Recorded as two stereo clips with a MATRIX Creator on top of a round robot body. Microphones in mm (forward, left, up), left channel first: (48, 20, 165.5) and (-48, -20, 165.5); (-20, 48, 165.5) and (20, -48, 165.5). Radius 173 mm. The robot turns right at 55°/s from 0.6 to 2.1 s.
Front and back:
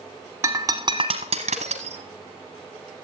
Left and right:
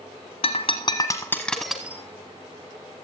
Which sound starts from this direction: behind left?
Breaking glass, at 0.4 s.